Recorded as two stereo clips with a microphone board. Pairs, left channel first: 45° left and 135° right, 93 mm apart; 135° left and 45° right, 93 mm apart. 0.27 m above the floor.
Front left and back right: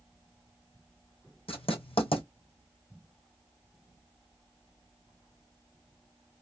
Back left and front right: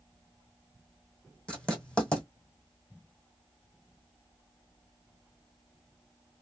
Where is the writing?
55° left, 1.8 m.